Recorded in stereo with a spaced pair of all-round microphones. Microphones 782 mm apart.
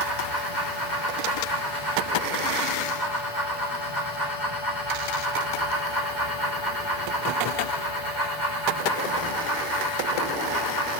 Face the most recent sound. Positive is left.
turn(degrees=70)  # may be behind; listen again after turning